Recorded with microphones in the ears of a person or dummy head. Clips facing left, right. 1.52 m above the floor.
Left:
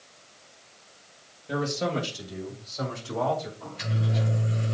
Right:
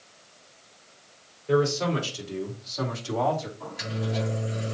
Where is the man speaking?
80° right, 5.5 m; by 3.5 s 75° right (ahead or behind), 3 m.